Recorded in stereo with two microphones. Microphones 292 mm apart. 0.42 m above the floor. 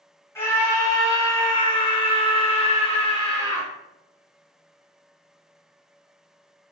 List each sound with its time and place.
0.3 s a scream: 10° left (ahead or behind), 1.7 m; by 3.7 s 20° left (ahead or behind), 1.0 m